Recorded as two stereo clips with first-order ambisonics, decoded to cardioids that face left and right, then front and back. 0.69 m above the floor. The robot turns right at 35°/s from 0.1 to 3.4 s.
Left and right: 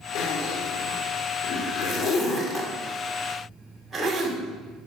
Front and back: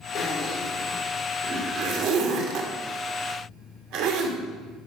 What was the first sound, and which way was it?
A zipper, 75° left.